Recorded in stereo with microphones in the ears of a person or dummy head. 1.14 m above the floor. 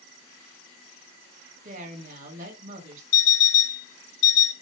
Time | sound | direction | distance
1.6 | a woman speaking | 55° right (ahead or behind) | 2.5 m
3.1 | an alarm clock | 55° left (ahead or behind) | 4.5 m